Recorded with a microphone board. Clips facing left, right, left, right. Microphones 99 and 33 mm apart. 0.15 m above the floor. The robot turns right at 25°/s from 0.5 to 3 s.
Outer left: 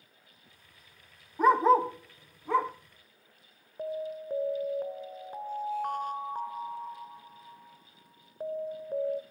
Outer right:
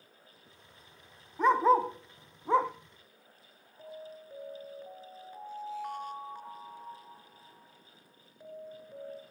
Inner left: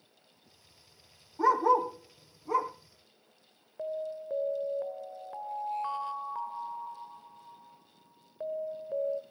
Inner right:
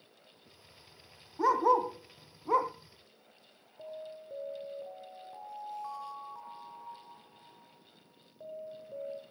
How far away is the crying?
I don't hear crying.